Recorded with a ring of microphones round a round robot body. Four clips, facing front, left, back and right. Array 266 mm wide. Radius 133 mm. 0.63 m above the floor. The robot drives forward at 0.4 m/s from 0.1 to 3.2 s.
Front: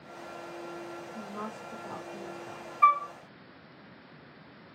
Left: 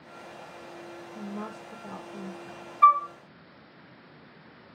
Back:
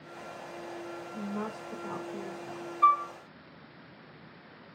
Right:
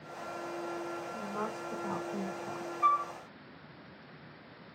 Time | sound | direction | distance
1.1 | a woman speaking | 105° right | 5.5 m
2.8 | a flute | 70° left | 0.6 m